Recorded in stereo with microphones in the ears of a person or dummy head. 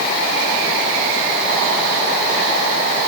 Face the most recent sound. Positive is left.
No sound to turn to.